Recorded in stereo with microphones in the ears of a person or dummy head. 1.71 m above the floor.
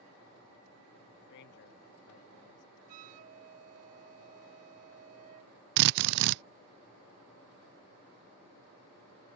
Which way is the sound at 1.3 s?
70° left (ahead or behind).